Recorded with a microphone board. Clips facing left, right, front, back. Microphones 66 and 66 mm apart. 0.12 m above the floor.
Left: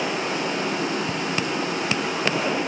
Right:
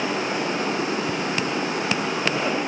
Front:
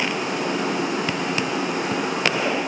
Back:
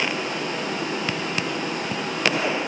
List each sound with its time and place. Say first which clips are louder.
0.0 s running water: right 1 dB, front 2 dB; 25° right, 7 m